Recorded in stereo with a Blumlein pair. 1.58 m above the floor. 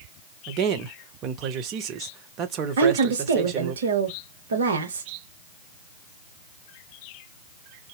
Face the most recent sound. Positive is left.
turn(degrees=-65)